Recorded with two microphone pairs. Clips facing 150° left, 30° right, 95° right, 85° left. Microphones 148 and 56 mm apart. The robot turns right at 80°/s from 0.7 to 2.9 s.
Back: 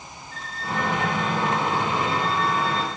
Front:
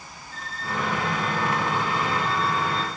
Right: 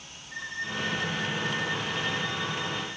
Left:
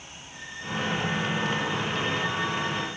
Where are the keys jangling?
No keys jangling in this recording.